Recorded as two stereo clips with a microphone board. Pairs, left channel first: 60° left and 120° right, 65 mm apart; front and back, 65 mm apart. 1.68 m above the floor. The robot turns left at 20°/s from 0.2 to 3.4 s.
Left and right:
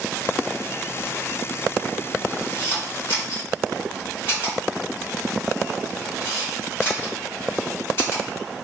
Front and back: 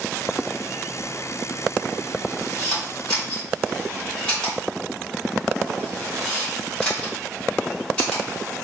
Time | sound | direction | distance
2.5 | a camera shutter | 85° left | 1.6 m